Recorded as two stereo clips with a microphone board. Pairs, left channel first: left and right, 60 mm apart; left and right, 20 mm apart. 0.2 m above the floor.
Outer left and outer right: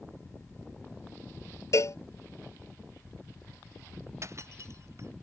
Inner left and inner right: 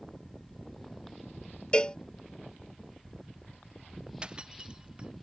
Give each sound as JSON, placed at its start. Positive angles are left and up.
{"t": 1.7, "sound": "a cowbell", "side_deg": 60}
{"t": 4.2, "sound": "breaking glass", "side_deg": -55}